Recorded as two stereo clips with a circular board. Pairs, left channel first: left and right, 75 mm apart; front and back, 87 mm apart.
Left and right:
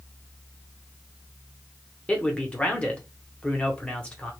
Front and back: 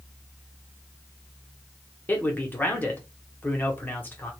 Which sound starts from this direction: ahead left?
A man speaking, at 2.1 s.